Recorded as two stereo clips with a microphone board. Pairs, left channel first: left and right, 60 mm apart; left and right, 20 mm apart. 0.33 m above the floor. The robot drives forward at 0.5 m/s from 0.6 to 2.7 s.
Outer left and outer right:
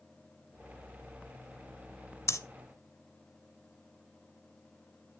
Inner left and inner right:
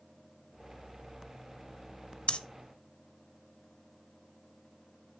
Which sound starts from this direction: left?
Breathing, at 2.3 s.